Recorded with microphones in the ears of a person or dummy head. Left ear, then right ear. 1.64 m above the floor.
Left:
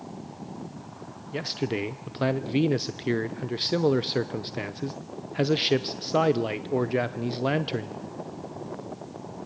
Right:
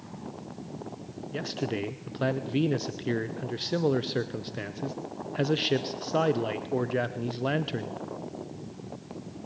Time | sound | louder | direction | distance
1.3 | a man speaking | left 3 dB | 15° left (ahead or behind) | 0.6 m